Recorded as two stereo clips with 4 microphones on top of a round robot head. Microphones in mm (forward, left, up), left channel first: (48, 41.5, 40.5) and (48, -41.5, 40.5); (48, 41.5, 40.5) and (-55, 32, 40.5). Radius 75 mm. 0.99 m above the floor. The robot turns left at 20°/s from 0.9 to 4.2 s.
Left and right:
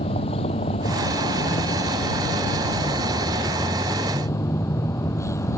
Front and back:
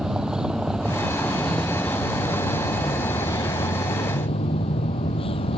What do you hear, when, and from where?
0.0 s a vehicle: 100° left; by 5.6 s 35° left